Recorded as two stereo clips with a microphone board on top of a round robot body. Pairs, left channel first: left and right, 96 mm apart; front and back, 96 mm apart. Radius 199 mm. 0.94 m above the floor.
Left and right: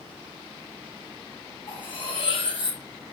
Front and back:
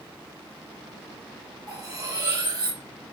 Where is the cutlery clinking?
130° left, 2.5 m.